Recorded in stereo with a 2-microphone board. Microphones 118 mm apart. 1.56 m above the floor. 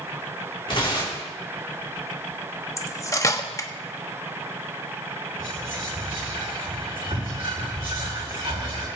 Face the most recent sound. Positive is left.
turn(degrees=-45)  # may be behind; listen again after turning